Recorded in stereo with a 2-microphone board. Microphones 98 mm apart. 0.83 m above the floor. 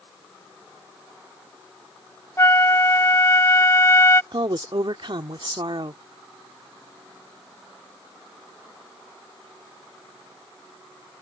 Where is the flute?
30° left (ahead or behind).